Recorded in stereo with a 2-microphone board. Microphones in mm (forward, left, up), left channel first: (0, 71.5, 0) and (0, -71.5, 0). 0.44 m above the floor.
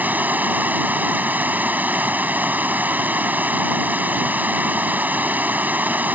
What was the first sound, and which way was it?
Running water, 10° right (ahead or behind).